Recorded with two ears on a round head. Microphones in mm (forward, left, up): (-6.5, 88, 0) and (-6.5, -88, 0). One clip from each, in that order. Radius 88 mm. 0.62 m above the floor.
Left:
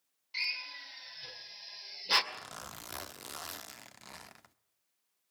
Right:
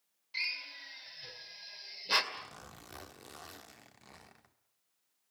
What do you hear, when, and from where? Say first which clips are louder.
0.3 s a drill: left 1 dB; 15° left (ahead or behind), 2.5 m
2.3 s a zipper: left 2 dB; 40° left (ahead or behind), 0.6 m